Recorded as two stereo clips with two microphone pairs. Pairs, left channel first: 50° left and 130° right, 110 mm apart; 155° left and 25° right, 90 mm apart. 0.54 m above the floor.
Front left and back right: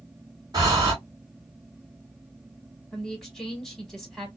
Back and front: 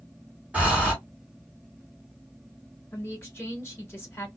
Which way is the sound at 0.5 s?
95° right.